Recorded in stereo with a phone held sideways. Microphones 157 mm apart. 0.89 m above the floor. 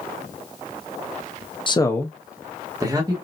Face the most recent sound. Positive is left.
turn(degrees=-25)  # may be behind; listen again after turning